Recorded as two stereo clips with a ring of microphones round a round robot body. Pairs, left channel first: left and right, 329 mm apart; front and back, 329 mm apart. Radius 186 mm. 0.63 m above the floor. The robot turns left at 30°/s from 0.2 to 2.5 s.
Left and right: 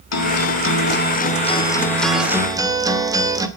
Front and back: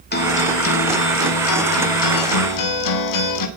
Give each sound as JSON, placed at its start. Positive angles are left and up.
{"t": 0.1, "sound": "a guitar", "azimuth_deg": 55, "distance_m": 2.5}